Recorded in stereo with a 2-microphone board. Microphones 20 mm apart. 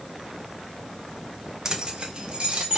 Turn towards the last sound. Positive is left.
turn(degrees=-65)  # may be behind; listen again after turning